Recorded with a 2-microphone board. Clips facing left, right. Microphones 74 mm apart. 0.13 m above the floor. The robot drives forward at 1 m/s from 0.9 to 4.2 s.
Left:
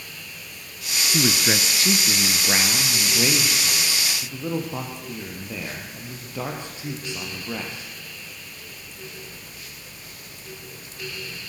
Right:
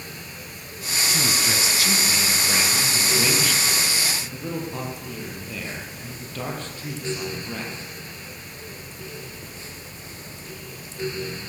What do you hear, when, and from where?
1.1 s a man speaking: 40° left (ahead or behind), 1.3 m; by 7.9 s 15° left (ahead or behind), 3.5 m